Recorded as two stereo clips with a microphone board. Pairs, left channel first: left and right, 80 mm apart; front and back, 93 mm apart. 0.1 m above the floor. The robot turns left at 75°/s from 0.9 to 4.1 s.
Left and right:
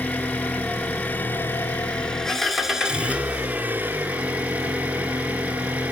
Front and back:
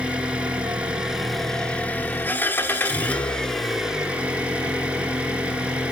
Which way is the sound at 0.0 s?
120° left.